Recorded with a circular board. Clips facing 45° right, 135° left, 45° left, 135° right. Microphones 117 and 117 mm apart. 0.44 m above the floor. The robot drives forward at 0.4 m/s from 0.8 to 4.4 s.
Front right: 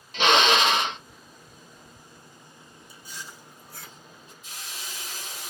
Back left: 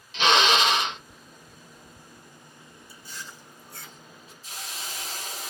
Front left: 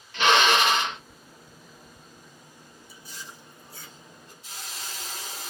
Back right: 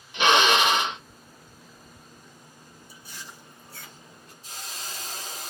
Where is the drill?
65° right, 0.9 m; by 1.0 s 70° right, 0.9 m.